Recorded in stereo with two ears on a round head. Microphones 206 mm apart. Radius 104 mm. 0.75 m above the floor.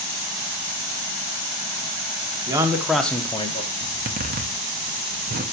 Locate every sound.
2.5 s a man speaking: 15° right (ahead or behind), 1.5 m; by 3.7 s 30° left (ahead or behind), 1.3 m
3.8 s a zipper: 40° right (ahead or behind), 1.1 m